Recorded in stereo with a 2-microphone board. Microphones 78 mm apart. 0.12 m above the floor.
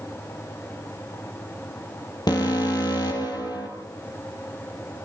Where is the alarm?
60° left (ahead or behind), 3 m.